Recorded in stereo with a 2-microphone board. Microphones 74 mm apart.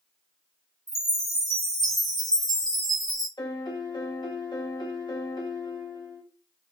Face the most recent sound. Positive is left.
turn(degrees=75)  # may be behind; listen again after turning